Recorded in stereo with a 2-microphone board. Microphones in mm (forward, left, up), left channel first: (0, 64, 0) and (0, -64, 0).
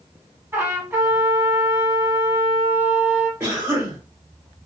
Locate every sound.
0.5 s a trumpet: 20° right (ahead or behind), 0.9 m
3.4 s a cough: 15° right (ahead or behind), 1.8 m